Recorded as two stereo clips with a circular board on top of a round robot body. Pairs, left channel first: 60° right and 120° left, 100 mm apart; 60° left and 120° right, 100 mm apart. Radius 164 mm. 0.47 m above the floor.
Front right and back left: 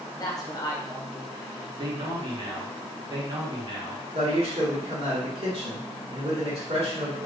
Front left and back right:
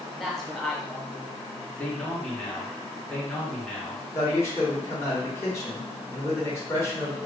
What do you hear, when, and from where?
0.1 s a man speaking: 25° right, 1.3 m
1.8 s a man speaking: 140° left, 1.4 m
4.1 s a man speaking: 125° left, 1.3 m